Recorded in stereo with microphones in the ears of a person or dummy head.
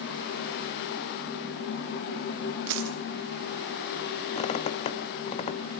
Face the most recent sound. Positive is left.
turn(degrees=35)  # may be behind; listen again after turning